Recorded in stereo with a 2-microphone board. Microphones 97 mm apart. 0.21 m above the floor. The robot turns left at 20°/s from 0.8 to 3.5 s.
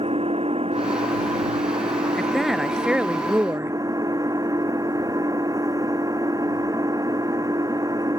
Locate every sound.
0.0 s an engine running: 90° right; by 8.2 s 145° right
2.2 s a woman speaking: 5° left (ahead or behind); by 3.8 s 20° right (ahead or behind)